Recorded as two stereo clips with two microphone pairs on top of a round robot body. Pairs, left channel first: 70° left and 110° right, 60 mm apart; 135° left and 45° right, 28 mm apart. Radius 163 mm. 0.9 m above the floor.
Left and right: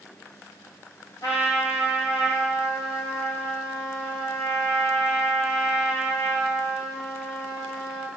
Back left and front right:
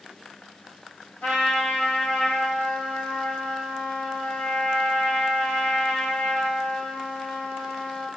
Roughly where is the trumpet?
Left.